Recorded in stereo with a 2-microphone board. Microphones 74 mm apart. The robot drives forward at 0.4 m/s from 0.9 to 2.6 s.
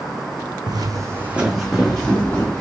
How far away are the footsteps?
About 0.7 m.